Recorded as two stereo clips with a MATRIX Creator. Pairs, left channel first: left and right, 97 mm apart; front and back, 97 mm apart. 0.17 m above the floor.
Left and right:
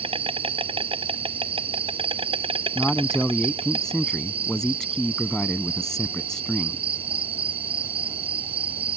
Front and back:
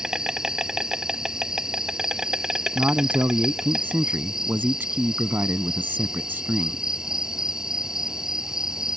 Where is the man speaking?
165° left.